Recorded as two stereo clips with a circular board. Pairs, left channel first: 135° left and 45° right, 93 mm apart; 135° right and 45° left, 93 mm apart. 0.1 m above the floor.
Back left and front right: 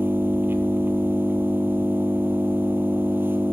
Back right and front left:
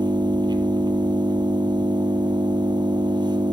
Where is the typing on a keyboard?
No typing on a keyboard in this recording.